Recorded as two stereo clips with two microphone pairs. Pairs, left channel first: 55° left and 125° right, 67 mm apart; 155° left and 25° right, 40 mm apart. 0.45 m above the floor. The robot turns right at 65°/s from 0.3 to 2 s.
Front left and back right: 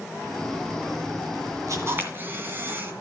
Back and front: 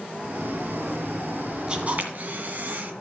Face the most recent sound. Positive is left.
turn(degrees=-70)